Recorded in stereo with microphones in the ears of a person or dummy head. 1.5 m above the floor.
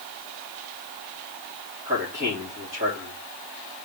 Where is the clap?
No clap in this recording.